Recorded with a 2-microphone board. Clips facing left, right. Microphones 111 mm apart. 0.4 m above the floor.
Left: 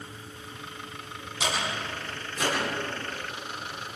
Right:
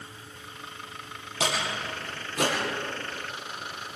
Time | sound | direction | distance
1.4 | a door slam | 85° right | 10 m